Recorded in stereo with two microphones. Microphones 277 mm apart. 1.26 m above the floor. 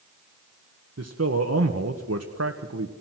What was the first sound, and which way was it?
A man speaking, 65° right (ahead or behind).